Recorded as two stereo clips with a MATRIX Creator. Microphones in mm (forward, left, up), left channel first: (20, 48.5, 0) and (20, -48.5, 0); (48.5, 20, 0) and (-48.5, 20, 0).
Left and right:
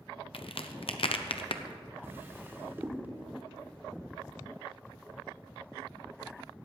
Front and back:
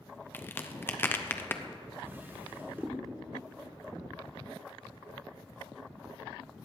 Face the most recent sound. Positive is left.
turn(degrees=-130)